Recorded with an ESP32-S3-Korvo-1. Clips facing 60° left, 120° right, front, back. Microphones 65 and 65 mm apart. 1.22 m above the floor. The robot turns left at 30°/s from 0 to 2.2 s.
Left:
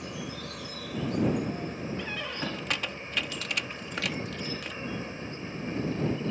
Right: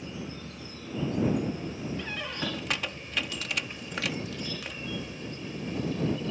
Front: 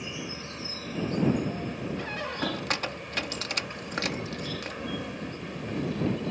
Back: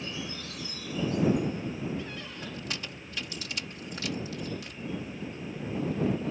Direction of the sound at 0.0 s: 70° left.